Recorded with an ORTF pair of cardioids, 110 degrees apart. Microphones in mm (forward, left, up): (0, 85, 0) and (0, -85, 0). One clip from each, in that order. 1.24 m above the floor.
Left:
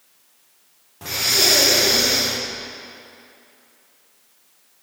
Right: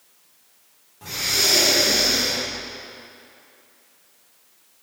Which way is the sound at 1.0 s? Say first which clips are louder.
Left 3 dB; 40° left.